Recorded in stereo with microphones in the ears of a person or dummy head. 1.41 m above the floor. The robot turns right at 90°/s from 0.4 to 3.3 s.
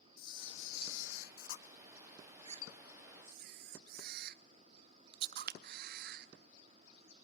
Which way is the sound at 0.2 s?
30° left (ahead or behind).